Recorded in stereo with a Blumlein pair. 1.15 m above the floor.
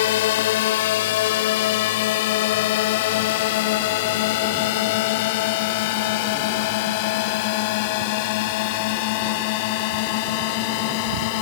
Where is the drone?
55° left; by 11.4 s 45° left.